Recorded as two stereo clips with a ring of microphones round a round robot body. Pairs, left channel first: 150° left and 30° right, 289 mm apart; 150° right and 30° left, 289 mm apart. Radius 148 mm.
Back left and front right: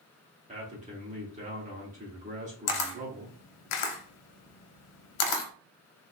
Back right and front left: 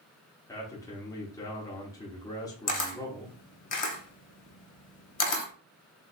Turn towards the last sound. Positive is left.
turn(degrees=145)